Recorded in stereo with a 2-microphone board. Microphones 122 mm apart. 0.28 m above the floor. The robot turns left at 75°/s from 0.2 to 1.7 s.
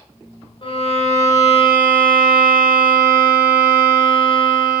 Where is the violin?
130° left, 1.9 m; by 4.8 s 50° left, 1.9 m.